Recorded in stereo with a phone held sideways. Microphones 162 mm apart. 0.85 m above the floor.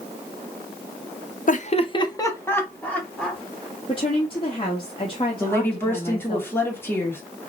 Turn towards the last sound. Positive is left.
turn(degrees=15)  # may be behind; listen again after turning